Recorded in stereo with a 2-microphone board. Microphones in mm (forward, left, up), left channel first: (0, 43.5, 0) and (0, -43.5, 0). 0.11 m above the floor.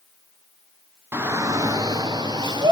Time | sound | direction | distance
1.1 | a shout | 25° right (ahead or behind) | 1.4 m